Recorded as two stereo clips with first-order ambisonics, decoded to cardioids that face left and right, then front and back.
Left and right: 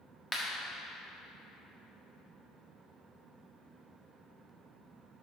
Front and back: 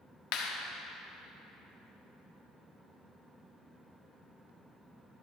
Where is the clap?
10° left, 1.2 m.